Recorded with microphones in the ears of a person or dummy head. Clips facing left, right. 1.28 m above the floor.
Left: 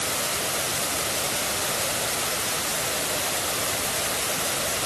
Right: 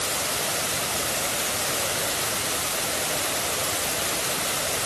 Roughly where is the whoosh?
I don't hear a whoosh.